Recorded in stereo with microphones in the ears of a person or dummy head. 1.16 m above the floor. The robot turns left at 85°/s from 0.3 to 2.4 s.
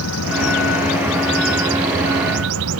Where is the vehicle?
80° left; by 2.8 s 85° right.